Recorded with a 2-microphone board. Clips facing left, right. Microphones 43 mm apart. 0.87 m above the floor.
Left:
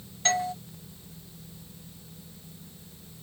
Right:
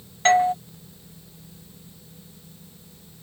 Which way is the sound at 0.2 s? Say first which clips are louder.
Right 10 dB; 35° right (ahead or behind).